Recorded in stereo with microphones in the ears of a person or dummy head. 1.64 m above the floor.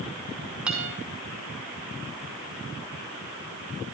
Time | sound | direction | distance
0.7 | a guitar | 10° right (ahead or behind) | 5.5 m